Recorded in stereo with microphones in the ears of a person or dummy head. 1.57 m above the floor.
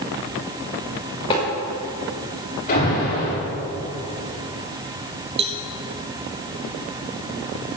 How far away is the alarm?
About 6 m.